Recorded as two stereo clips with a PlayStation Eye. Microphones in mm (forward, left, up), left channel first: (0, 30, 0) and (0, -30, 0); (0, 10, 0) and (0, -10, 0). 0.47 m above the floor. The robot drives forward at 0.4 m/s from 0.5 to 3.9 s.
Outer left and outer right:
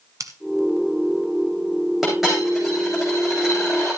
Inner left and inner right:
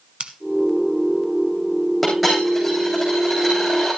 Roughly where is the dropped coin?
Centre.